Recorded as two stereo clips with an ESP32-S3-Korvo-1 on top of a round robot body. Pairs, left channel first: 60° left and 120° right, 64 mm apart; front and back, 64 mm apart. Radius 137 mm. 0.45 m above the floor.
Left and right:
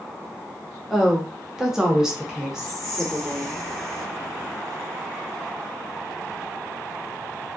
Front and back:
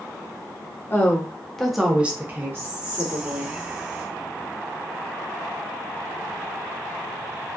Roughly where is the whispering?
Behind left.